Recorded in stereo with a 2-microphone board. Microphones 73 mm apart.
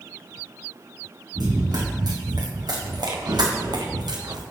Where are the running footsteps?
70° right (ahead or behind), 3.5 m; by 4.4 s 75° right (ahead or behind), 1.6 m.